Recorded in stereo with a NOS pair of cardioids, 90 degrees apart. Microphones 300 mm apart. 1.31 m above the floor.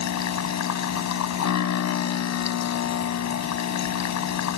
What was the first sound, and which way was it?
A machine running, 65° left.